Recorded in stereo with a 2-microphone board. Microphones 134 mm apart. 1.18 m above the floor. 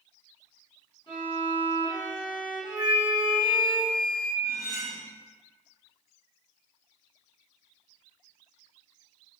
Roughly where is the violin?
Left.